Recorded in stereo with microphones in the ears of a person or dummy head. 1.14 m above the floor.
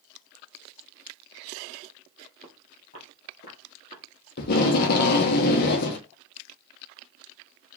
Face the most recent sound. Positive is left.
turn(degrees=55)  # may be behind; listen again after turning